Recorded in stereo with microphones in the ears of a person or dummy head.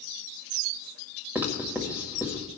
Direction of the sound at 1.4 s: 10° right (ahead or behind).